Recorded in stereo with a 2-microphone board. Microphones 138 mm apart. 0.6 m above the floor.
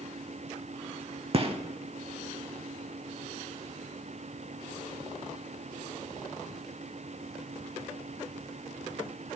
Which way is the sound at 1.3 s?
45° right (ahead or behind).